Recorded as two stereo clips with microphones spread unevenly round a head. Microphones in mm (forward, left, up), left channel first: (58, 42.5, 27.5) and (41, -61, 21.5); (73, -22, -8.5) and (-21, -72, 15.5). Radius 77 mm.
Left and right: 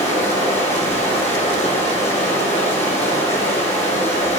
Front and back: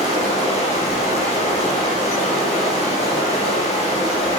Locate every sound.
0.0 s running water: 80° left, 4 m